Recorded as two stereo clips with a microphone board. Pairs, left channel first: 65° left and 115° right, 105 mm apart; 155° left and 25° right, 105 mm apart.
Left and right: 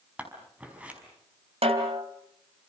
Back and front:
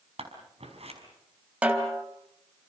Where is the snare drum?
100° right, 3 m.